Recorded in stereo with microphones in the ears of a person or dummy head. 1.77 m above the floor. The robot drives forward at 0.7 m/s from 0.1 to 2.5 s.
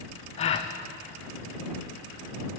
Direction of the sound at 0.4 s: 35° left (ahead or behind).